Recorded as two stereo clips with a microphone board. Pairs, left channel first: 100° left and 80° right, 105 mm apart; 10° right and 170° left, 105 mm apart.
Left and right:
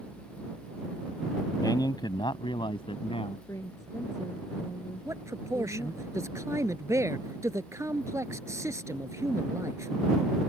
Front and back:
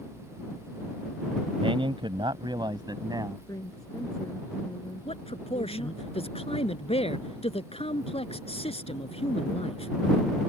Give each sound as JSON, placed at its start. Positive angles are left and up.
{"t": 1.6, "sound": "a man speaking", "azimuth_deg": 150}
{"t": 3.5, "sound": "a woman speaking", "azimuth_deg": 40}
{"t": 5.0, "sound": "a man speaking", "azimuth_deg": -20}